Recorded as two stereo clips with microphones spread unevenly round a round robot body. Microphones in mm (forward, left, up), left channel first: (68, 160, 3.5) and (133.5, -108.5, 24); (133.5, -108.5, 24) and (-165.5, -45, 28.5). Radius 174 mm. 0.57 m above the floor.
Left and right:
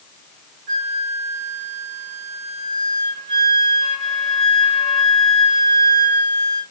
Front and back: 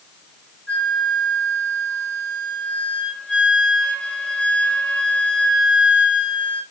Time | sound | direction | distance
0.7 | a flute | 95° right | 1.2 m